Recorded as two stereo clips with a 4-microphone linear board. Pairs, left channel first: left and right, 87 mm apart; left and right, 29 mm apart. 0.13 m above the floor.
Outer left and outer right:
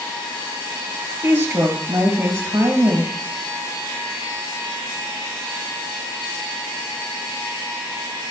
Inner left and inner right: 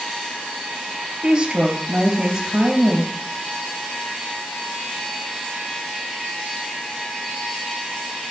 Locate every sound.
1.2 s a woman speaking: 25° right (ahead or behind), 1.9 m